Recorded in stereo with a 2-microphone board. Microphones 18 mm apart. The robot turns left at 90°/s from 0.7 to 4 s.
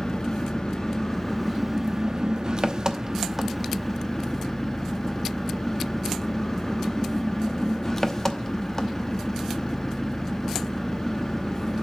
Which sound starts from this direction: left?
An engine running, at 0.0 s.